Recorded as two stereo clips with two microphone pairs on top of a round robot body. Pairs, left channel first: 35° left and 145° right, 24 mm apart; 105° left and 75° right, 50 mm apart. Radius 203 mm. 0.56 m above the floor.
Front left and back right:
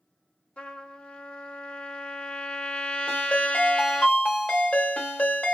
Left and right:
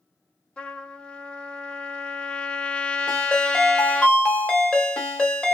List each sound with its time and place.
0.6 s a trumpet: 40° left, 1.8 m
3.1 s a ringtone: 35° left, 1.6 m